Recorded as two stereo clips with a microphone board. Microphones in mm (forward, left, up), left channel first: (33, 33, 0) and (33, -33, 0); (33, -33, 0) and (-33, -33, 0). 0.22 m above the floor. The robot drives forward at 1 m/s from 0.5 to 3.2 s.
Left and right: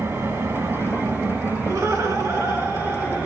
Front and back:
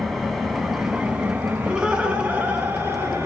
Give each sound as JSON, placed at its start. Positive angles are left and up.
{"t": 0.0, "sound": "an engine running", "azimuth_deg": -90, "distance_m": 1.6}
{"t": 1.6, "sound": "laughter", "azimuth_deg": -105, "distance_m": 2.0}